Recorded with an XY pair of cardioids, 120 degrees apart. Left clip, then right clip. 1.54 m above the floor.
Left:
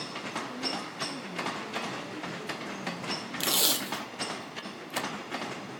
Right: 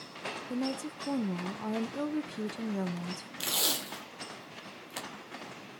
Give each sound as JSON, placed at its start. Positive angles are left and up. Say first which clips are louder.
{"t": 0.5, "sound": "a woman speaking", "louder": "left 2 dB", "azimuth_deg": -60, "distance_m": 0.9}
{"t": 3.4, "sound": "tape being pulled", "louder": "left 3 dB", "azimuth_deg": 25, "distance_m": 1.2}